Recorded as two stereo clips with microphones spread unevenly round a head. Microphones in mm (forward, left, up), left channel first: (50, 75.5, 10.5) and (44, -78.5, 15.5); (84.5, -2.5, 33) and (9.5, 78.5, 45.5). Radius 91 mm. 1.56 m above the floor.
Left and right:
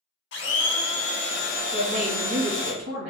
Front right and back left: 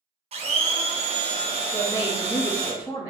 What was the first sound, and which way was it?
A blender, 110° left.